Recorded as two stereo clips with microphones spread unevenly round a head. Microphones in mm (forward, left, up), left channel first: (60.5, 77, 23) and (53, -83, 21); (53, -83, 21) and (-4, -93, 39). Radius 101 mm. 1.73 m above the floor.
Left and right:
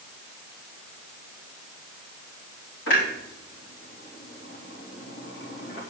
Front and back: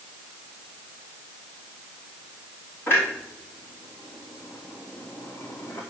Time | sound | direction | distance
2.9 | a clunk | 110° left | 3.5 m